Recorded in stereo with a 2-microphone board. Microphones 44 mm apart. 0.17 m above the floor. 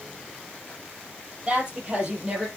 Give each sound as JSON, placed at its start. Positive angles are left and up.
{"t": 1.5, "sound": "a woman speaking", "side_deg": -25, "distance_m": 4.5}